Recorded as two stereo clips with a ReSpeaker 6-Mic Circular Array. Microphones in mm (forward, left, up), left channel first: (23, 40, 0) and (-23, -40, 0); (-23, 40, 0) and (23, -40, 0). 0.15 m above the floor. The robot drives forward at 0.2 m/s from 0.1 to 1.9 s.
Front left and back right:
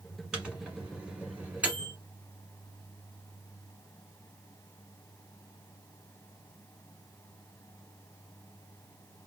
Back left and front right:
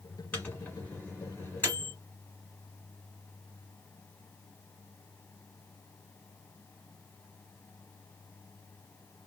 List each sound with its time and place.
0.3 s a microwave: 170° left, 1.3 m; by 1.9 s 175° left, 1.5 m